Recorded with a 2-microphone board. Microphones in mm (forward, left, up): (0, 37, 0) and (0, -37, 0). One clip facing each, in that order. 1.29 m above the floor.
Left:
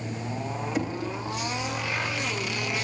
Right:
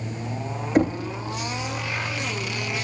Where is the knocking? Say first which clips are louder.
Right 11 dB; 50° right (ahead or behind), 0.5 m.